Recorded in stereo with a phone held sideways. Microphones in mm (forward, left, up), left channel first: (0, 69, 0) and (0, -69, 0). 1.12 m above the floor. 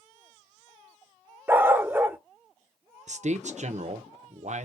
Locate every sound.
1.5 s a dog barking: 15° right (ahead or behind), 0.7 m
3.1 s a man speaking: 60° right (ahead or behind), 0.8 m